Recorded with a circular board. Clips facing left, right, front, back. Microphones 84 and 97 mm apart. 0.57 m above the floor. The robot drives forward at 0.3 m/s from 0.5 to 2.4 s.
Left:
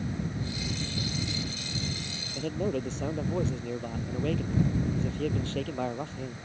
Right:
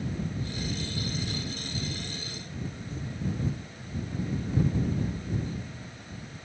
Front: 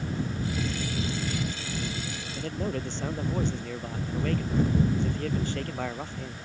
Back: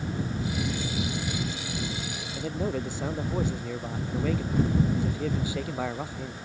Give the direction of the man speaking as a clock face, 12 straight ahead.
9 o'clock.